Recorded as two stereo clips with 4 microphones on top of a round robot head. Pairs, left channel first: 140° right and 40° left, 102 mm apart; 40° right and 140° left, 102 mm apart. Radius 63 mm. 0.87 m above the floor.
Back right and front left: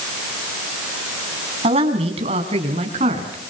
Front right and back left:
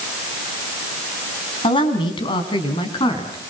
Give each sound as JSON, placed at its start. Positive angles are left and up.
{"t": 1.6, "sound": "a woman speaking", "azimuth_deg": 5, "distance_m": 6.0}